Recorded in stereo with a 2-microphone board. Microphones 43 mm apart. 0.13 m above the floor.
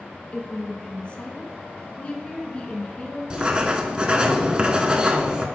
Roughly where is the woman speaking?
Left.